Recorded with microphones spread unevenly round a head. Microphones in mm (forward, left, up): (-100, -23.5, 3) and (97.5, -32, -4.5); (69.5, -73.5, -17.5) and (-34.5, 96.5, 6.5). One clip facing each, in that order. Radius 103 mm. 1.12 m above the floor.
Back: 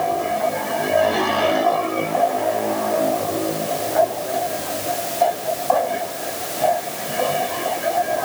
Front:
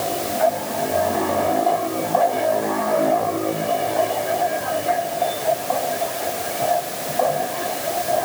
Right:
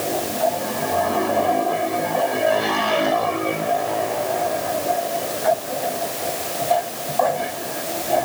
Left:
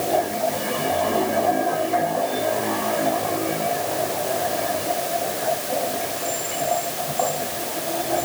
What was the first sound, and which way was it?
Only background noise.